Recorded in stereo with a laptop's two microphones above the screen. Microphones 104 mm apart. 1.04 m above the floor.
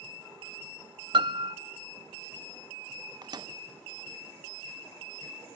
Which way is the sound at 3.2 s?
45° right (ahead or behind).